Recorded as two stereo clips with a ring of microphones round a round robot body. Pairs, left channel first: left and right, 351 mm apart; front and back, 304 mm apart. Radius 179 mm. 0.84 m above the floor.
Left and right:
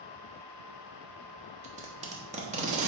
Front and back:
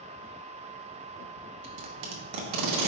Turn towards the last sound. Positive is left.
turn(degrees=-160)